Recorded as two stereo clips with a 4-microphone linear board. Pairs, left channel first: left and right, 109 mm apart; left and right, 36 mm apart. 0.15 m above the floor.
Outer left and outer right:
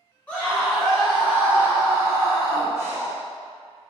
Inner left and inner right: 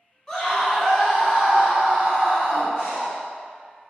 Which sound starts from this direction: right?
Breathing, at 2.8 s.